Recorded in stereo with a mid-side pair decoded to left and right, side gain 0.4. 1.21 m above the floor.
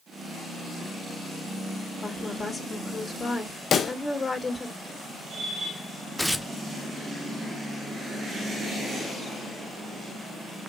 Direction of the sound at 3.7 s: 60° left.